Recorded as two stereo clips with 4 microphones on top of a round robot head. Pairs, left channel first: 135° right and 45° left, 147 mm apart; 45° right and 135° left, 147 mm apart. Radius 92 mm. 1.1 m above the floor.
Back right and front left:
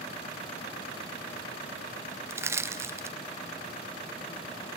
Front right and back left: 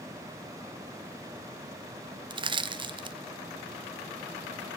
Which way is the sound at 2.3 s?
105° left.